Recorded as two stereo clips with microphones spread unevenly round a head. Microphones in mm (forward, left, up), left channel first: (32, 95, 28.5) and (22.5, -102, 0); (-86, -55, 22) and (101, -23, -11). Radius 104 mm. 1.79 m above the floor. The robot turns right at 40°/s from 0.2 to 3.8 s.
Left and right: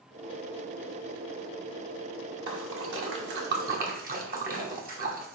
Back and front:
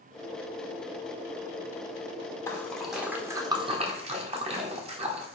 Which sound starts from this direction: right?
A splash, at 2.5 s.